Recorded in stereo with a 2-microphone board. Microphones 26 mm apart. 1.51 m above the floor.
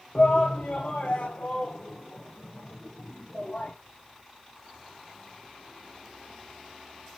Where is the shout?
45° left (ahead or behind), 0.6 m; by 3.7 s 80° left, 2 m.